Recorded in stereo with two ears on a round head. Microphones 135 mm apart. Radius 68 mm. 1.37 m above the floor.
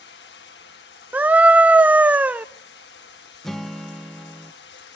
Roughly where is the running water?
Left.